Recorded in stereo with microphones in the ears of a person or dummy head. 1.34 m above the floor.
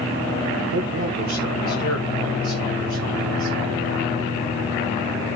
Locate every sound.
0.7 s a man speaking: 80° right, 1.1 m; by 3.5 s 55° right (ahead or behind), 5 m